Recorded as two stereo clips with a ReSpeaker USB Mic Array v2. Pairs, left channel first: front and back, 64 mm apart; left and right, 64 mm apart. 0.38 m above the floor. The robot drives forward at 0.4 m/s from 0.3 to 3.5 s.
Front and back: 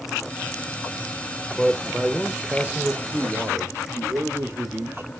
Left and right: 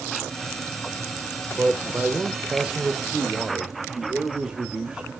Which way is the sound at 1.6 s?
85° right.